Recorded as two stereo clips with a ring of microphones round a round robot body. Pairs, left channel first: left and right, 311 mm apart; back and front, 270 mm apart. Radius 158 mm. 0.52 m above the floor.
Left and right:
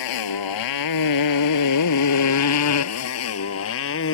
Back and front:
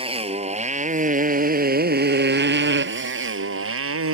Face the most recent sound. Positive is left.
turn(degrees=40)